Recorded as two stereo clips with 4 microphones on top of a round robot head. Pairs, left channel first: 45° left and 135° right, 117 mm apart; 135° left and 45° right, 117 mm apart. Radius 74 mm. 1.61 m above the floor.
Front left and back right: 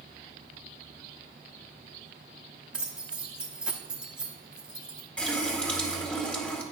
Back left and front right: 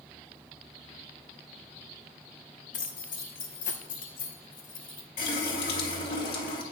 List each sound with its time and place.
2.7 s keys jangling: 145° left, 1.0 m
5.2 s a running tap: 125° left, 1.7 m